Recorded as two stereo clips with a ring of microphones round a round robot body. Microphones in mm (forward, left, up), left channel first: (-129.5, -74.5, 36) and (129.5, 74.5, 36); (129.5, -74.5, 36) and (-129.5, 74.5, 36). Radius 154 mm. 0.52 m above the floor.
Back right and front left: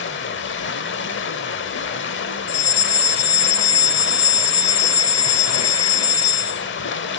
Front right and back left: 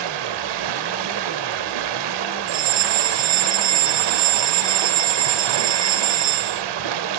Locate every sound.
0.0 s running water: 155° left, 0.8 m
2.5 s a fire alarm: 175° left, 3.5 m